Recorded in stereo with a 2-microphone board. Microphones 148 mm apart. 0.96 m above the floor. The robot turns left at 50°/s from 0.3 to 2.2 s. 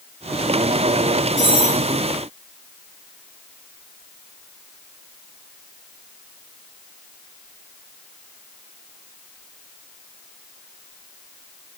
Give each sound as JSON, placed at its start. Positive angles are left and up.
{"t": 1.4, "sound": "cutlery clinking", "side_deg": -45, "distance_m": 3.0}